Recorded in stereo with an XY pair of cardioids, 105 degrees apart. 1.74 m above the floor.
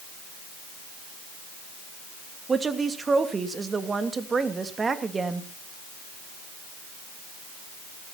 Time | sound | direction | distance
2.5 | a woman speaking | 30° right | 2.5 m